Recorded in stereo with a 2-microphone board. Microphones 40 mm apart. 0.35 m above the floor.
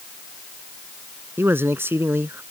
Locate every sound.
1.4 s a man speaking: 70° right (ahead or behind)